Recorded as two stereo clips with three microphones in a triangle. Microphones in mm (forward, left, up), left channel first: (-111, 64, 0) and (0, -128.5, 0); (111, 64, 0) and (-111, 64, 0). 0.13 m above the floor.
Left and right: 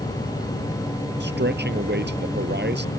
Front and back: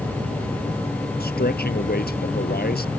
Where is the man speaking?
35° right.